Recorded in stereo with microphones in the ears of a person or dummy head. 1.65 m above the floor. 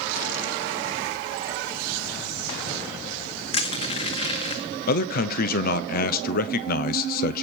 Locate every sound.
3.5 s crushing: 35° left (ahead or behind), 1.8 m
4.9 s a man speaking: 50° left (ahead or behind), 0.8 m